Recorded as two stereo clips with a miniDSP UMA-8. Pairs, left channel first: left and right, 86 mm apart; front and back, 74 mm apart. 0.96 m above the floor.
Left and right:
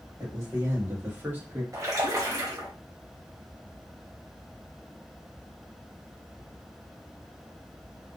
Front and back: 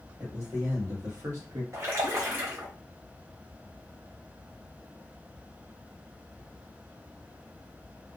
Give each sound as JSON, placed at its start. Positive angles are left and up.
{"t": 0.2, "sound": "a man speaking", "azimuth_deg": -145, "distance_m": 1.6}
{"t": 1.7, "sound": "a splash", "azimuth_deg": -135, "distance_m": 1.0}